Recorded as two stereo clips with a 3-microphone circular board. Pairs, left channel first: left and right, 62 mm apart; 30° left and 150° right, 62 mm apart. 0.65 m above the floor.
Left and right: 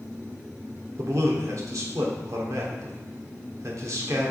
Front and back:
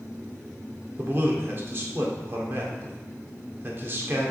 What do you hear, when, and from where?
1.0 s a man speaking: 105° right, 1.4 m